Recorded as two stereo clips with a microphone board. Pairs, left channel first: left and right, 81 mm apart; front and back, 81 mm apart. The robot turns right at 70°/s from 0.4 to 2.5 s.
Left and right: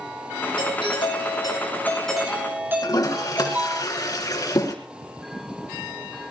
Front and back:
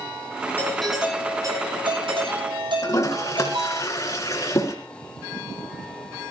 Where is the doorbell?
70° left, 9.5 m; by 3.8 s 155° right, 9.5 m.